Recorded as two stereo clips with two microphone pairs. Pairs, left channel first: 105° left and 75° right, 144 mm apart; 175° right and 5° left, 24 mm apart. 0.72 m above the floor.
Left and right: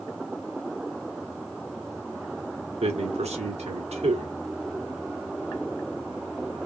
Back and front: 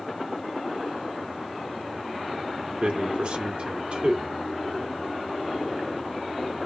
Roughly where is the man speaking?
Ahead right.